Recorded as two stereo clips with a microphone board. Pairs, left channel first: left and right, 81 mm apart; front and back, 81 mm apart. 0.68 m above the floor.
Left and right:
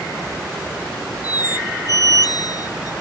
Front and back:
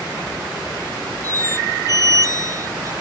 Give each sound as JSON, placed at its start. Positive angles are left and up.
{"t": 1.2, "sound": "a squeak", "azimuth_deg": 130}